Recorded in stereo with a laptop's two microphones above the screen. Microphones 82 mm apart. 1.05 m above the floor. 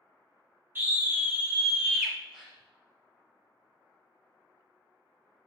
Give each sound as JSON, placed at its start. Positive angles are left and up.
{"t": 0.8, "sound": "a scream", "side_deg": -25, "distance_m": 2.0}
{"t": 2.3, "sound": "a gasp", "side_deg": -10, "distance_m": 1.4}